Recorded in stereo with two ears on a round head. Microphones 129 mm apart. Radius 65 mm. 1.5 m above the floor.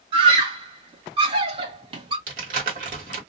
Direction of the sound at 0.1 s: 40° right (ahead or behind).